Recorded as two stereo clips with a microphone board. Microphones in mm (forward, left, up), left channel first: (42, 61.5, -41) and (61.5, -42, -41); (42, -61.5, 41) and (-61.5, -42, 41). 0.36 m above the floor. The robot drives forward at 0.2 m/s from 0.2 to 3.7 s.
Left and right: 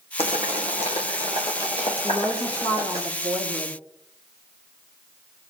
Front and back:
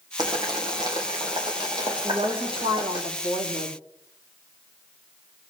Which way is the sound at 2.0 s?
150° left.